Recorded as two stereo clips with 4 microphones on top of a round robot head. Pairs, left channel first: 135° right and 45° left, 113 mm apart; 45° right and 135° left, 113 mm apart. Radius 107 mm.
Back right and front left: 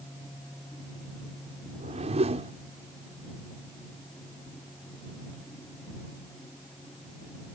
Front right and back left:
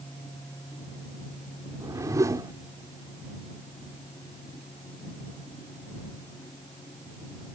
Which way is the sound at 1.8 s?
75° left.